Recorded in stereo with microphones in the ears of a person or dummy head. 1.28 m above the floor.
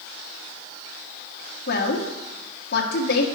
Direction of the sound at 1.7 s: 50° left (ahead or behind).